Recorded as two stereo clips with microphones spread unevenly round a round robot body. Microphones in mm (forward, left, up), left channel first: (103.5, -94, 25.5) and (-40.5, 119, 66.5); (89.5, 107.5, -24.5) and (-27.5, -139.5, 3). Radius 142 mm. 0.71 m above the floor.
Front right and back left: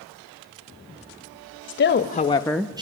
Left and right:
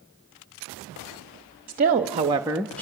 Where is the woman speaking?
60° right, 1.2 m; by 2.8 s 75° left, 0.8 m.